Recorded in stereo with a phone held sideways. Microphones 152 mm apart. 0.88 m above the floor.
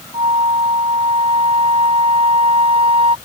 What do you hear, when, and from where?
0.1 s a flute: 40° right (ahead or behind)